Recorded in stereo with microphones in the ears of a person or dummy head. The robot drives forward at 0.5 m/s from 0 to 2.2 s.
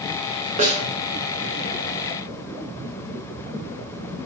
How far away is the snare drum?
About 2.5 m.